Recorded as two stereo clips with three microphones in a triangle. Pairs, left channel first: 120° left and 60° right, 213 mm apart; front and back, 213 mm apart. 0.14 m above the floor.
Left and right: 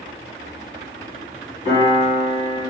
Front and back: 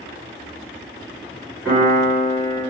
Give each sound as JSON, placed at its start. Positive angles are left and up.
{"t": 1.6, "sound": "a piano", "azimuth_deg": -105, "distance_m": 2.0}